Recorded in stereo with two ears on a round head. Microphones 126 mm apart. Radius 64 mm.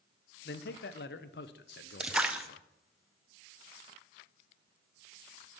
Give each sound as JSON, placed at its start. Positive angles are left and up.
{"t": 0.5, "sound": "a man speaking", "side_deg": 85, "distance_m": 0.7}
{"t": 2.0, "sound": "a splash", "side_deg": -10, "distance_m": 0.6}